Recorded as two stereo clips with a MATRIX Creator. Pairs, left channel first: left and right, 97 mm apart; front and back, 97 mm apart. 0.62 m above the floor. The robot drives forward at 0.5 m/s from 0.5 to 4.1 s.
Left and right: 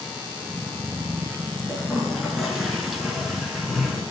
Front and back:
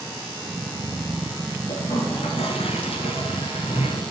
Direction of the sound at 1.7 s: Straight ahead.